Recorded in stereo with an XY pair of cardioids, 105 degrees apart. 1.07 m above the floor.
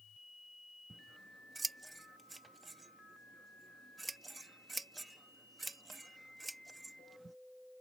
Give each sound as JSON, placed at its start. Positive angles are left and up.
{"t": 0.9, "sound": "scissors", "azimuth_deg": -20}